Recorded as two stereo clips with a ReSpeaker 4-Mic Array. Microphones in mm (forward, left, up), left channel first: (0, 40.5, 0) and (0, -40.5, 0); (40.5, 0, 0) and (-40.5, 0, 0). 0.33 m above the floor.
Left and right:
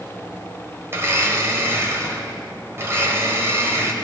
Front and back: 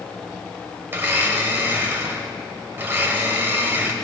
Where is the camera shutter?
I don't hear a camera shutter.